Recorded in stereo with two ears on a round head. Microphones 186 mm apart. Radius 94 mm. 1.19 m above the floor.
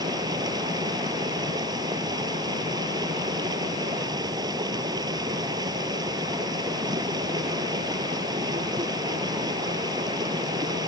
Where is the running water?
20° right (ahead or behind).